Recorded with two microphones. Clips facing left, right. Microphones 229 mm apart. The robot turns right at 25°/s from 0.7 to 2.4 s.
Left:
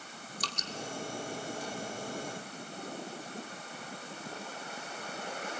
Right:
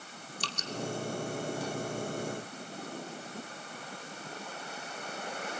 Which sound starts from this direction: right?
Dripping, at 0.4 s.